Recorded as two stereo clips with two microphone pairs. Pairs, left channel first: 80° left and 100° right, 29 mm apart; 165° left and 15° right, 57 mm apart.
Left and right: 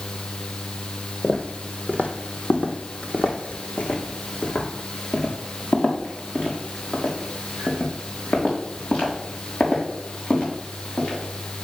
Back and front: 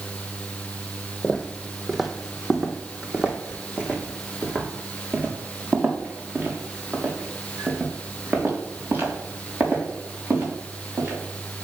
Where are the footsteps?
85° left, 1.4 m; by 11.7 s 40° left, 6 m.